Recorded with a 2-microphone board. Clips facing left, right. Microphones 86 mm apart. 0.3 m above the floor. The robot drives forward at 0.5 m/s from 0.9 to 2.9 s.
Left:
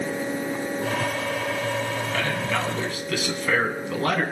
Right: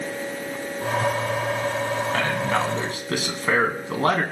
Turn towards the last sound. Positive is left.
turn(degrees=-35)  # may be behind; listen again after turning